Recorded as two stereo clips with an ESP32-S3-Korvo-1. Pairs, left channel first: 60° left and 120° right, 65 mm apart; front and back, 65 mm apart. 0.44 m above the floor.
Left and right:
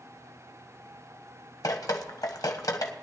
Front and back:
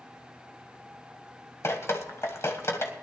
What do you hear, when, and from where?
1.6 s dripping: 45° left, 1.4 m